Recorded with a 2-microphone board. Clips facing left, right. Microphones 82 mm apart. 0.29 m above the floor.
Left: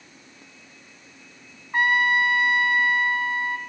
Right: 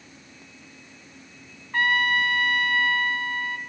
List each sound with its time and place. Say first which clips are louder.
1.7 s a trumpet: left 2 dB; 20° left (ahead or behind), 2.5 m